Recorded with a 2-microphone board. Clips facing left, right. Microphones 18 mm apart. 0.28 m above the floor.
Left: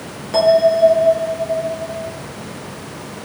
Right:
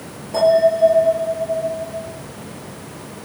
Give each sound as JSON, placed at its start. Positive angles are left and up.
{"t": 0.3, "sound": "a bell", "side_deg": 65, "distance_m": 4.0}